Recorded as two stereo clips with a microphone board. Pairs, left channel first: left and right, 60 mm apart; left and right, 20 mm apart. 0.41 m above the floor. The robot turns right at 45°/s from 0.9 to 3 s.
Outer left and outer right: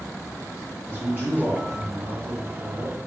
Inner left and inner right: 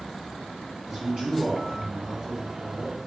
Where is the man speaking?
140° right, 1.6 m; by 3.0 s 50° right, 1.6 m.